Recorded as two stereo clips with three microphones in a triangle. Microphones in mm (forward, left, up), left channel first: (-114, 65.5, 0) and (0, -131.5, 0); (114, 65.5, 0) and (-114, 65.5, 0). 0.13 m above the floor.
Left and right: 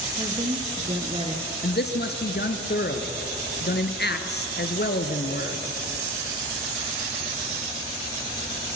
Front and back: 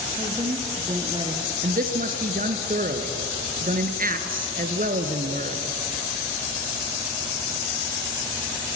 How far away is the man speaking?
About 1.7 m.